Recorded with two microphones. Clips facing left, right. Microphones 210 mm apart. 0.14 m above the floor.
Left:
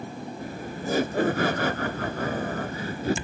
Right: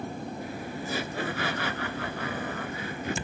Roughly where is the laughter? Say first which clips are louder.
Left 2 dB; left.